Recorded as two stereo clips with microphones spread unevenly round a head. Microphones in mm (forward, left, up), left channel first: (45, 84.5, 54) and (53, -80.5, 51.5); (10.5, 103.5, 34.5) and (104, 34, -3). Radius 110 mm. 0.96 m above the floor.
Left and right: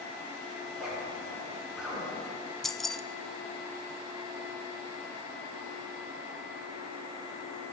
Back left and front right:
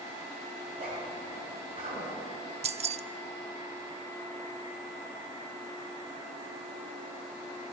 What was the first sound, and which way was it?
A zipper, straight ahead.